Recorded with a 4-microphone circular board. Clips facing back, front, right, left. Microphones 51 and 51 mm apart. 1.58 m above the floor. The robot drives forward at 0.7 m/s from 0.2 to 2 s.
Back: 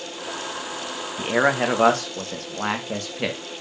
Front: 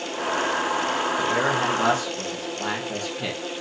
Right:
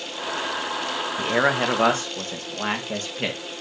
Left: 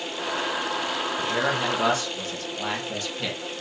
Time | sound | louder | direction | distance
1.2 | a man speaking | back 6 dB, right 6 dB | 130° right | 1.2 m